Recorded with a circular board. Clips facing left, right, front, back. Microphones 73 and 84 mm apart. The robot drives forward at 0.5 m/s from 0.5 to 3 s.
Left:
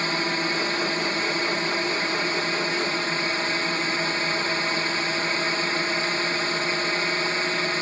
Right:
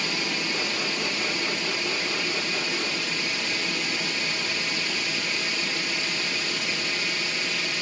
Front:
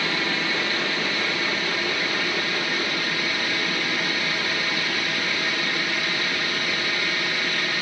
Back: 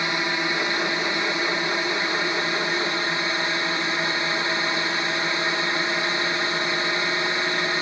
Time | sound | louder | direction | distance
0.0 | a drone | left 4 dB, back 1 dB | 120° left | ?